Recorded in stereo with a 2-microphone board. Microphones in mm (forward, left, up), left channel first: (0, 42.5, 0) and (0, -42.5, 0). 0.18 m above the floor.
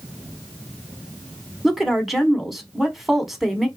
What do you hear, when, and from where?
1.6 s a woman speaking: centre (ahead or behind), 1.1 m